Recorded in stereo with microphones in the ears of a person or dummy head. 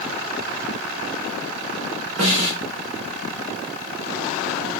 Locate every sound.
2.2 s a snare drum: 35° right (ahead or behind), 1.4 m